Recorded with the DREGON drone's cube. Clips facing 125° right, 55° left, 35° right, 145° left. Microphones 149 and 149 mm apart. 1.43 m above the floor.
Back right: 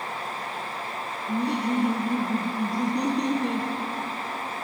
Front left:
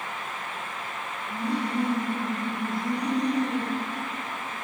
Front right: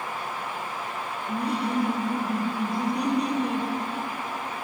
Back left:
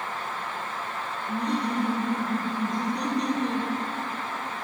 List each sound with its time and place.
1.3 s laughter: 115° right, 0.8 m